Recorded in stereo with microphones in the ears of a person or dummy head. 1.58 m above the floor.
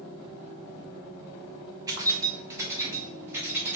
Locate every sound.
1.9 s keys jangling: 20° right (ahead or behind), 1.3 m; by 3.8 s 10° right (ahead or behind), 2.5 m